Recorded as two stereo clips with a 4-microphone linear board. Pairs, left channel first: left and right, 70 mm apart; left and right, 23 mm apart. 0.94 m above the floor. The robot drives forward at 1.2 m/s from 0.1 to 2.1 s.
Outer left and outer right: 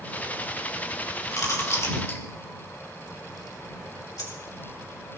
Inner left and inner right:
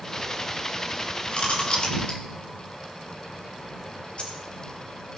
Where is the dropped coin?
60° left (ahead or behind), 2.5 m.